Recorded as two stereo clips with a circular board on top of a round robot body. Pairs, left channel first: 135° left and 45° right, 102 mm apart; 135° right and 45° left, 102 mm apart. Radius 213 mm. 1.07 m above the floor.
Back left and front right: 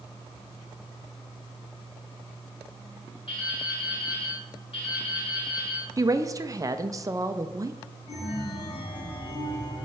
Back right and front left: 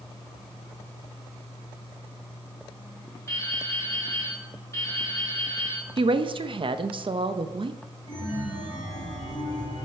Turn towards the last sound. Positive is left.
turn(degrees=-160)